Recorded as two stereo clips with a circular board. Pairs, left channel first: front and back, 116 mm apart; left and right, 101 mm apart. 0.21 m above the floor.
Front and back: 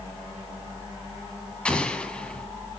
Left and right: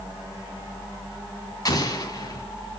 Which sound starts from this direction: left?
An explosion, at 1.6 s.